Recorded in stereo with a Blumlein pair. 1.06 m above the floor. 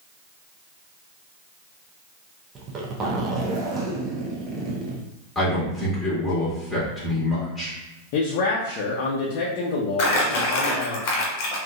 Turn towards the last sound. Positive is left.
turn(degrees=45)